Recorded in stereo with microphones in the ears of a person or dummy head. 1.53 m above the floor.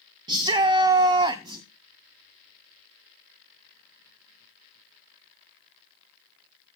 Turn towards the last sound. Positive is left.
turn(degrees=-20)  # may be behind; listen again after turning